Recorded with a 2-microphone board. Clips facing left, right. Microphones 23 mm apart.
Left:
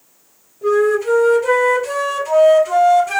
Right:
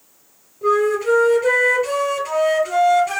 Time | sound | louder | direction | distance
0.6 | a flute | left 2 dB | 25° right (ahead or behind) | 3 m